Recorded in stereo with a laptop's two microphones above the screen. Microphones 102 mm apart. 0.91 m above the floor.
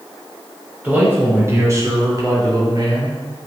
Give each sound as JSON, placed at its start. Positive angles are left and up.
{"t": 0.8, "sound": "a man speaking", "side_deg": -20, "distance_m": 4.0}